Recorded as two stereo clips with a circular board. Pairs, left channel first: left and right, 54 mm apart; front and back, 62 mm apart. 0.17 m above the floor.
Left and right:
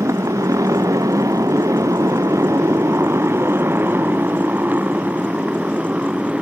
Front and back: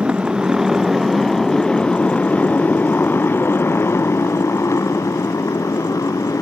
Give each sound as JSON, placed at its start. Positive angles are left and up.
{"t": 0.0, "sound": "a motorcycle", "azimuth_deg": -105}